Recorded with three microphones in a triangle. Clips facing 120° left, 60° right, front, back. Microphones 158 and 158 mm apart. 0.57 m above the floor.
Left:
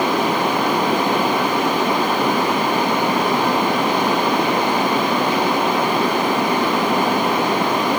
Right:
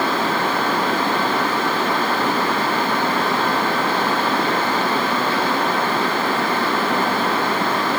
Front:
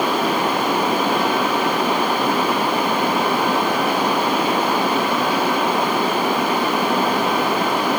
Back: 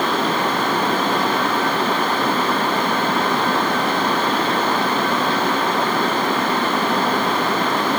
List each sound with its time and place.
Only background noise.